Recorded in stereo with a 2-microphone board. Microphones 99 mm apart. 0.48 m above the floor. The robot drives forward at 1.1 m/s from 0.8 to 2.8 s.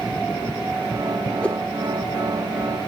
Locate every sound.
1.4 s a whoosh: 10° left (ahead or behind), 0.8 m